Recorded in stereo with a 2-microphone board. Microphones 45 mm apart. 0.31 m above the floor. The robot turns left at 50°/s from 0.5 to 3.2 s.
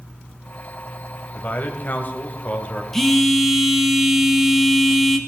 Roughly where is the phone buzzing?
Centre.